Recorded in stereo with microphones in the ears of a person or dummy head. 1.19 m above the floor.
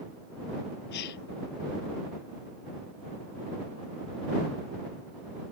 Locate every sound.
0.9 s a gasp: 60° left (ahead or behind)